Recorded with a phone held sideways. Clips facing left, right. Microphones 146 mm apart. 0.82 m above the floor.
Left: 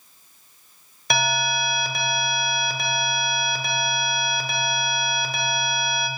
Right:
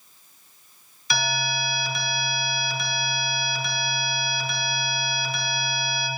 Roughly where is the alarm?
Left.